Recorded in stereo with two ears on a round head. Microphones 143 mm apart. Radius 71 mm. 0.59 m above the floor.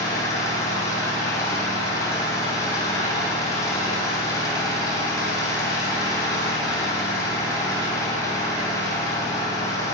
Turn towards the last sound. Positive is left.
turn(degrees=25)  # may be behind; listen again after turning